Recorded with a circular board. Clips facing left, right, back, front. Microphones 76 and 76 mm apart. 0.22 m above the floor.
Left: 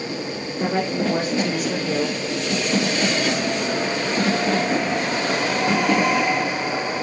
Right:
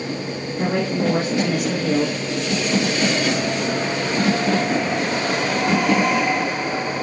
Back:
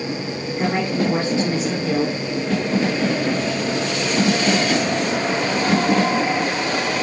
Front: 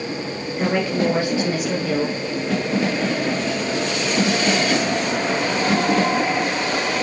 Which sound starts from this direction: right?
A woman speaking, at 0.6 s.